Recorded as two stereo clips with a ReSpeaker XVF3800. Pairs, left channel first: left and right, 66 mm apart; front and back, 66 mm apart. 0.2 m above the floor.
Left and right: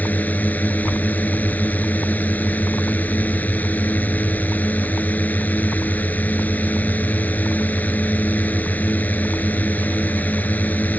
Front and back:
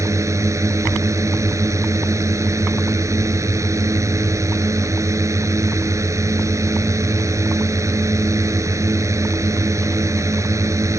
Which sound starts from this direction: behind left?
A drone, at 0.0 s.